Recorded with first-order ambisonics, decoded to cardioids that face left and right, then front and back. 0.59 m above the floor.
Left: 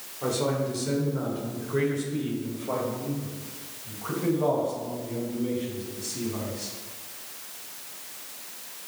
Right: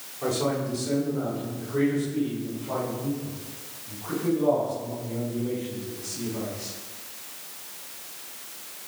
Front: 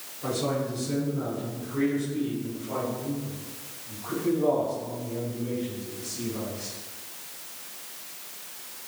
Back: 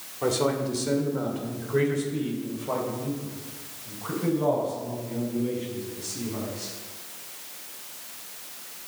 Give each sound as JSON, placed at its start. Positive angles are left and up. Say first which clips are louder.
{"t": 0.2, "sound": "a man speaking", "louder": "even, back 4 dB", "azimuth_deg": 180, "distance_m": 2.5}